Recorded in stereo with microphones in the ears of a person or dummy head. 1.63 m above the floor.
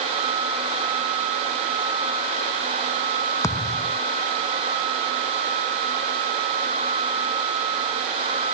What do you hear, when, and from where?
3.4 s a thud: 10° left (ahead or behind)